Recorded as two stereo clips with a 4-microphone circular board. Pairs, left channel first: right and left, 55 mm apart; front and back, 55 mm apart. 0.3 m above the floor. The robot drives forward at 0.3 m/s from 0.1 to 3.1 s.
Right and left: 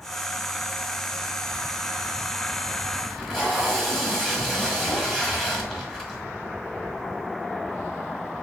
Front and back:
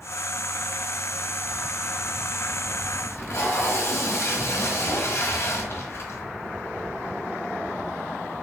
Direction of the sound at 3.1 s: 10° right.